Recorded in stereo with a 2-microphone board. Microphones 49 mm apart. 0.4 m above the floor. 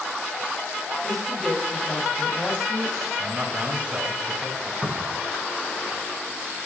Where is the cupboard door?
25° right (ahead or behind), 1.5 m.